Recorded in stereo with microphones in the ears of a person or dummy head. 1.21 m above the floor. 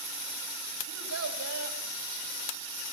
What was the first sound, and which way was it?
A child speaking, 85° right.